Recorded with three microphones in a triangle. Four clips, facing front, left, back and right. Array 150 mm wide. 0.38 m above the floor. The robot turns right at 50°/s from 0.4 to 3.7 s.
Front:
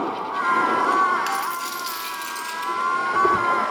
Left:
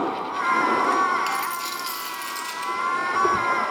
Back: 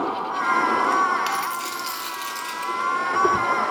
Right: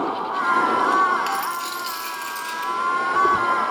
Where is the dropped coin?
Straight behind, 0.7 m; by 2.7 s 110° right, 0.7 m.